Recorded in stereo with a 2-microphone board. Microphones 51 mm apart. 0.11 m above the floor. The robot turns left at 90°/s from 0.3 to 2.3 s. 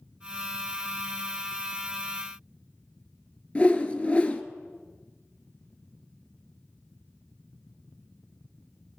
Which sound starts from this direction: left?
A whoosh, at 3.5 s.